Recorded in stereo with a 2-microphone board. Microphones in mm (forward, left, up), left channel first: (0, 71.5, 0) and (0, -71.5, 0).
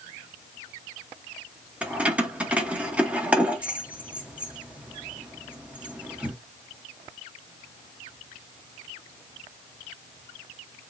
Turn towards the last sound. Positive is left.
turn(degrees=-10)  # may be behind; listen again after turning